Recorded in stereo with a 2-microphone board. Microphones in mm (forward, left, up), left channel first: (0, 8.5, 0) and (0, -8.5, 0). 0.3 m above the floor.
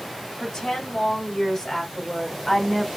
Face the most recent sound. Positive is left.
turn(degrees=20)  # may be behind; listen again after turning